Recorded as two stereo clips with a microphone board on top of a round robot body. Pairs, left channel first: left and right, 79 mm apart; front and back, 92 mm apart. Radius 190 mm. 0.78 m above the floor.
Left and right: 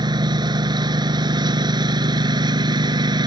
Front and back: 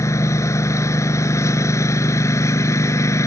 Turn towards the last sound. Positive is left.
turn(degrees=-60)